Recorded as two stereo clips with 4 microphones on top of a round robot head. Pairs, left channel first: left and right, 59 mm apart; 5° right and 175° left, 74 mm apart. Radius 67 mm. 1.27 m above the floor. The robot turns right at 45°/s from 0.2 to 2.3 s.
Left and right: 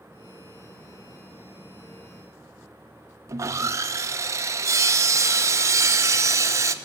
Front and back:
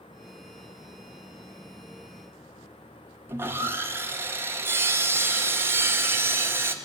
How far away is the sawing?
About 1.3 m.